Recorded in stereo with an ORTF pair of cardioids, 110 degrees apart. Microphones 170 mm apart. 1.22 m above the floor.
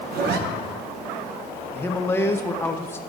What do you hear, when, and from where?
0.1 s a zipper: 65° right, 1.0 m
1.7 s a man speaking: 15° left, 0.9 m